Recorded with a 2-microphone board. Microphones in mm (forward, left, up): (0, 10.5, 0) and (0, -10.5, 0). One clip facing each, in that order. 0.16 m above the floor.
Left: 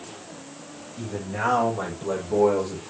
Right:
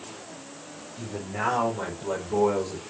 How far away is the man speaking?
About 6.5 m.